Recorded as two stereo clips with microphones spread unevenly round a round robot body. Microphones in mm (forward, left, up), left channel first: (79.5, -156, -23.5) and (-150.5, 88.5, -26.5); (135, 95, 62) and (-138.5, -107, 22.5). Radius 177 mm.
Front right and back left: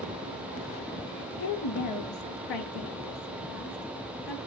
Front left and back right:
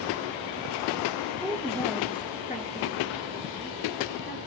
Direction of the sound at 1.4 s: 70° right.